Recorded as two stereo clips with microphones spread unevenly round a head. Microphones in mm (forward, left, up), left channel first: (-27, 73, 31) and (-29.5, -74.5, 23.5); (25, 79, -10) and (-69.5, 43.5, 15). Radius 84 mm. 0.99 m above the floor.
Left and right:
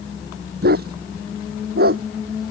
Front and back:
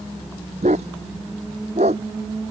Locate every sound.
0.6 s a dog barking: 110° right